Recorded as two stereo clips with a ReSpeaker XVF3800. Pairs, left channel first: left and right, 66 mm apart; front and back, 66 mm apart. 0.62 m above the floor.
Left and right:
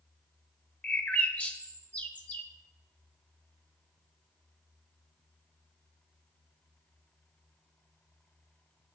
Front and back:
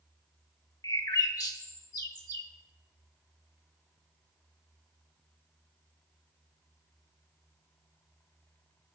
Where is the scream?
No scream in this recording.